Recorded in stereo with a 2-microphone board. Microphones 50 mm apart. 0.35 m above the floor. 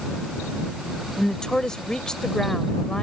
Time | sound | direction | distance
1.2 | a woman speaking | 15° left (ahead or behind) | ?